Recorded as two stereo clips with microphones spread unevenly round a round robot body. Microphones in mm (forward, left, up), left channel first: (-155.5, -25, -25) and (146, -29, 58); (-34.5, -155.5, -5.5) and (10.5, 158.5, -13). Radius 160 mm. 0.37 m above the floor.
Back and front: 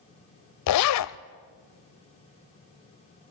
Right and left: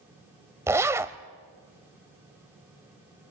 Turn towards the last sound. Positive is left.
turn(degrees=165)